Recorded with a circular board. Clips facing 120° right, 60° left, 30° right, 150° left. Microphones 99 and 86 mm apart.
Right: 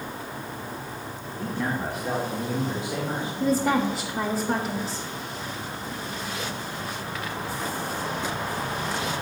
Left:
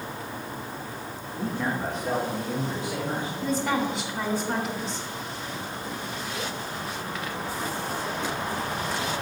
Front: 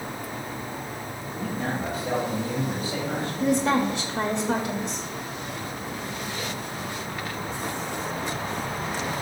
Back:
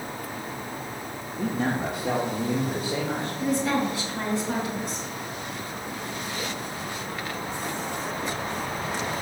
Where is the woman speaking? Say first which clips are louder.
Right 5 dB, front 3 dB; 80° right, 1.1 m.